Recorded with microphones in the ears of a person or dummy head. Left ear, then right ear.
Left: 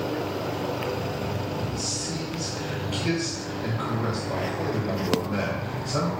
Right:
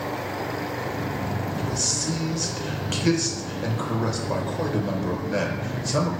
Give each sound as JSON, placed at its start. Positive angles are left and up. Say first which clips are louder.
{"t": 1.6, "sound": "a man speaking", "louder": "right 4 dB", "side_deg": -75, "distance_m": 0.7}